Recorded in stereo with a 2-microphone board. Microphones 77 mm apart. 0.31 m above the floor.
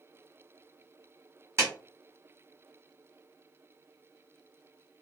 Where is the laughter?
I don't hear laughter.